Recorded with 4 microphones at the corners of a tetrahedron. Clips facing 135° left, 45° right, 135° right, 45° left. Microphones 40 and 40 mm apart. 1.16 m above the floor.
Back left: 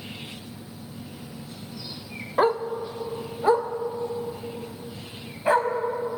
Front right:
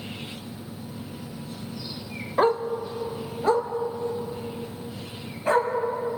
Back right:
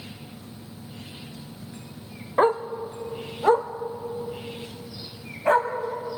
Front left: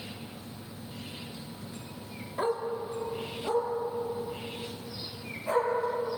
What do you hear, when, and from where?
2.4 s a dog barking: 145° right, 0.8 m; by 5.7 s 155° right, 3.5 m